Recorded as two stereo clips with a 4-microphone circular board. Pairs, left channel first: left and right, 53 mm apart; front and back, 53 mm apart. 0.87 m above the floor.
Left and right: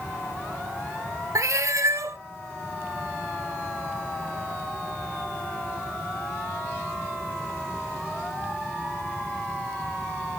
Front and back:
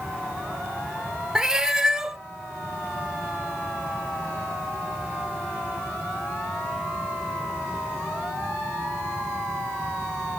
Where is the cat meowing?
105° right, 0.6 m.